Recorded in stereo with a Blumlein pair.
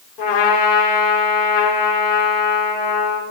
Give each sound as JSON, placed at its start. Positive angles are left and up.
{"t": 0.2, "sound": "a trumpet", "azimuth_deg": 30, "distance_m": 4.5}